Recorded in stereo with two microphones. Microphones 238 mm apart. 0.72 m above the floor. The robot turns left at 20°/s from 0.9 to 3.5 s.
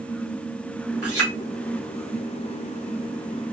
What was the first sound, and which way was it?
A clink, 80° right.